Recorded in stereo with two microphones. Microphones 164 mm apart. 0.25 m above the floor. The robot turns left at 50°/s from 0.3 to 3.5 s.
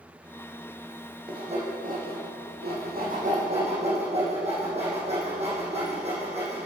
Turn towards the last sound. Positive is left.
turn(degrees=-40)  # may be behind; listen again after turning